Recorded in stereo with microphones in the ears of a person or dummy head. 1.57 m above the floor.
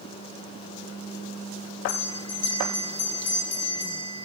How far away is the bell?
About 6 m.